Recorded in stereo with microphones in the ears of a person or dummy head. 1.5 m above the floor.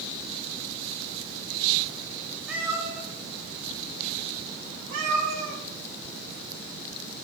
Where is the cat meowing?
5° right (ahead or behind), 1.5 m; by 5.6 s 65° right (ahead or behind), 4.5 m.